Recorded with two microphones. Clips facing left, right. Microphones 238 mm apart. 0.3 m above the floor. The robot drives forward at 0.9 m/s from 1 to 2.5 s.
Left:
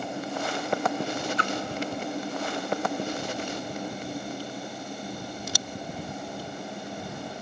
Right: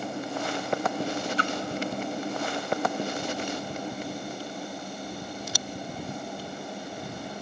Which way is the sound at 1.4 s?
35° right (ahead or behind).